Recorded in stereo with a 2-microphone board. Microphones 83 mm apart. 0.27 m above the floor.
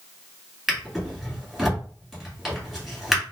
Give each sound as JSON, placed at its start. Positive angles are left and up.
{"t": 0.7, "sound": "a drawer", "side_deg": 0, "distance_m": 1.6}